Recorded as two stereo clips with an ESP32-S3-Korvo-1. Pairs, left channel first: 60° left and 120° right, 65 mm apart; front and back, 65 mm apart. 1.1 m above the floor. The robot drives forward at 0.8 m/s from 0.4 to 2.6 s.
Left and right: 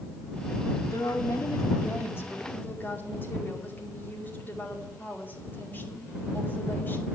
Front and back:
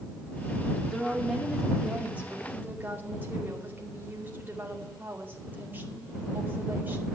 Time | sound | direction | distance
0.9 | a woman speaking | 85° left | 2 m